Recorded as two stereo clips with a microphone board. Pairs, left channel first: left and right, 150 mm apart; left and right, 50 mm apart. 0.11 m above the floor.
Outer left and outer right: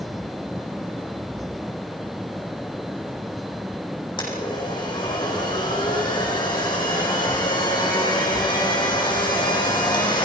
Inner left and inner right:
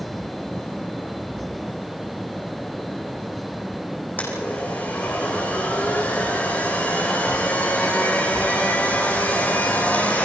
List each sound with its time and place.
4.2 s a blender: 30° left (ahead or behind), 7 m